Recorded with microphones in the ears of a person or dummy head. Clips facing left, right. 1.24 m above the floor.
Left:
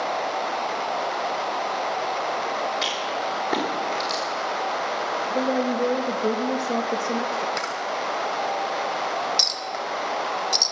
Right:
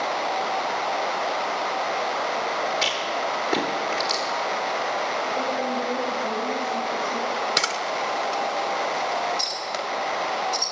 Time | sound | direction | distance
2.8 | a rattle | 5° left (ahead or behind) | 3 m
5.3 | a woman speaking | 60° left (ahead or behind) | 0.8 m
7.6 | a camera shutter | 45° right (ahead or behind) | 0.8 m
9.4 | a clink | 70° left (ahead or behind) | 1.3 m